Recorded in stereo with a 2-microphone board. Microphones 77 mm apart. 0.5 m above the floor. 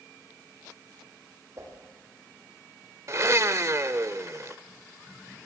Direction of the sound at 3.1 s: 40° right (ahead or behind).